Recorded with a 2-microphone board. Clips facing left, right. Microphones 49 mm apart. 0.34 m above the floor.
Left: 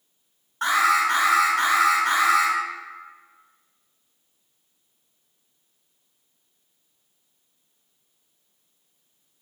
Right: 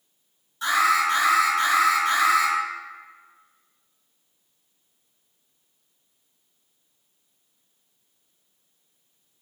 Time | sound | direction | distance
0.6 | an alarm | 55° left (ahead or behind) | 1.6 m